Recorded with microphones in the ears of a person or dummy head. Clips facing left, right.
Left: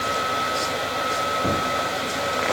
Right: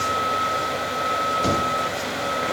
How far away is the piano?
I don't hear a piano.